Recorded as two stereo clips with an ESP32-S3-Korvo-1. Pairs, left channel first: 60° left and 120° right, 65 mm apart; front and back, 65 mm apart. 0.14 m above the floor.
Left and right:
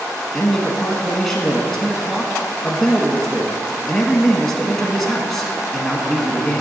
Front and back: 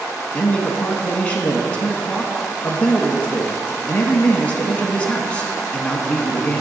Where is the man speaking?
15° right, 1.1 m.